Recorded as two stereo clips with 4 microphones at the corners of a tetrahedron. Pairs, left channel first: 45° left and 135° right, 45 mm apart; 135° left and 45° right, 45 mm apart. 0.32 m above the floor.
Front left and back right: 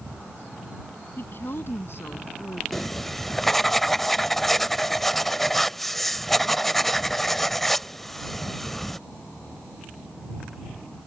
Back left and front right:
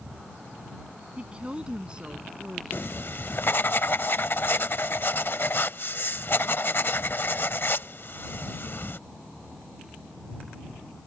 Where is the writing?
130° left.